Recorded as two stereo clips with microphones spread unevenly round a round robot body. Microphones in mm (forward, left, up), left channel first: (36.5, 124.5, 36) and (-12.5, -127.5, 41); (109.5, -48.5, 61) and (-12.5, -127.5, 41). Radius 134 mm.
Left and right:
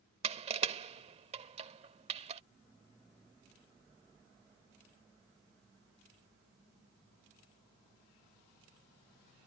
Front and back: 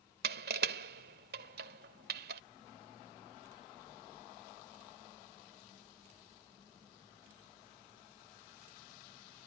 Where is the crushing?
165° right.